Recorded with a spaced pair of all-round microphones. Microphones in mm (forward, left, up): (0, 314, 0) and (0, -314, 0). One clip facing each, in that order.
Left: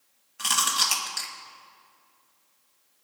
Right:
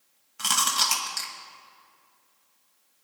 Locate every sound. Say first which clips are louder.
0.4 s chewing: right 1 dB; 30° right (ahead or behind), 1.4 m